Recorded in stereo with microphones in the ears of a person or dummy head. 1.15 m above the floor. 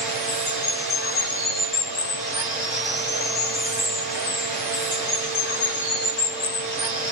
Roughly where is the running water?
Left.